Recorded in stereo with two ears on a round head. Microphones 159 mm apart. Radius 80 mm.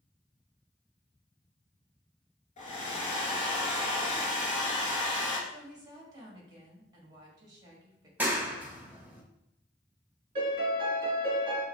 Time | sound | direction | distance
2.6 | a hair dryer | 40° left (ahead or behind) | 1.7 m
5.5 | a woman speaking | 20° right (ahead or behind) | 1.6 m
8.2 | a clap | 10° right (ahead or behind) | 0.7 m
10.3 | a piano | 30° right (ahead or behind) | 2.0 m